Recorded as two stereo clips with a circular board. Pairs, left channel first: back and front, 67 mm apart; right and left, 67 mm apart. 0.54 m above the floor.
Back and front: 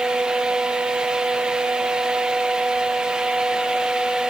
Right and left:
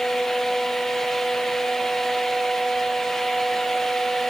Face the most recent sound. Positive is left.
No sound to turn to.